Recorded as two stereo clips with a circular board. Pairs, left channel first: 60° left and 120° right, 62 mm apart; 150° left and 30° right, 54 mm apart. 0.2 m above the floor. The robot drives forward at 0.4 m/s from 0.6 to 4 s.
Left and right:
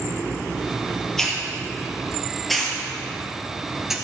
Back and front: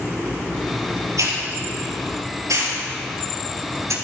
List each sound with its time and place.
1.2 s a hiss: 25° right, 3.5 m; by 4.0 s 40° right, 2.5 m